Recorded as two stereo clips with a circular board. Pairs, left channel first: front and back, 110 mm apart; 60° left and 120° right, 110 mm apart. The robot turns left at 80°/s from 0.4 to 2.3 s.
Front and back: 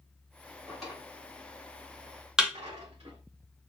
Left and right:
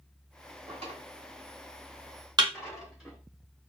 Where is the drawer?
80° right, 2.5 m; by 3.2 s 150° left, 2.5 m.